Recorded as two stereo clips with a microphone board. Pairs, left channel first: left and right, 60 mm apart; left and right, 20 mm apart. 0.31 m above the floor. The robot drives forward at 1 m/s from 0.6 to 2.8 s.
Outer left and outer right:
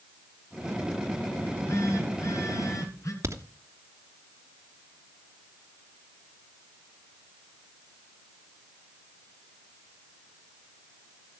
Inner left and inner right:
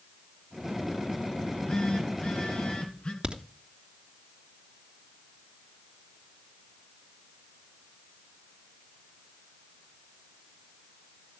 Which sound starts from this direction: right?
A crack, at 3.2 s.